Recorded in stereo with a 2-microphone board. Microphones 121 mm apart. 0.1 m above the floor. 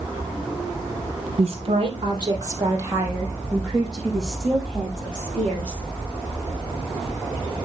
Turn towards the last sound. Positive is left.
turn(degrees=10)  # may be behind; listen again after turning